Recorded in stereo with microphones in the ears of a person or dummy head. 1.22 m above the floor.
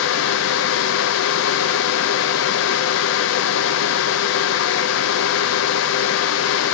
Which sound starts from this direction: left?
A fan, at 0.0 s.